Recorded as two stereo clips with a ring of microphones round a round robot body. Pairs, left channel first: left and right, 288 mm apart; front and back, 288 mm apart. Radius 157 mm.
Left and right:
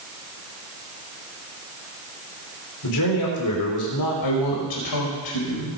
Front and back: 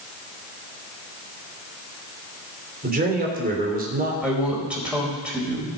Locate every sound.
2.8 s a man speaking: 120° left, 3.5 m
4.2 s a woman speaking: 95° left, 4.5 m